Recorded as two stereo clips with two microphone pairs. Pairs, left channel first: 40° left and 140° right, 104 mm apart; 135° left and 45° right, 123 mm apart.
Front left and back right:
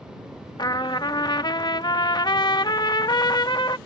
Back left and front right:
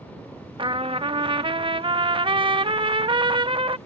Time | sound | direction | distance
0.6 | a trumpet | straight ahead | ?